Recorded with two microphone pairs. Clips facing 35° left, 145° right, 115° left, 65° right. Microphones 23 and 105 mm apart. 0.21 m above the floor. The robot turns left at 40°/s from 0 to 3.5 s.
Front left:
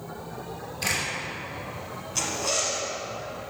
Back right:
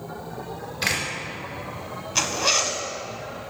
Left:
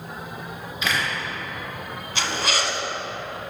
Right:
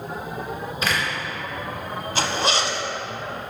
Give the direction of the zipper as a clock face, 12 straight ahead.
4 o'clock.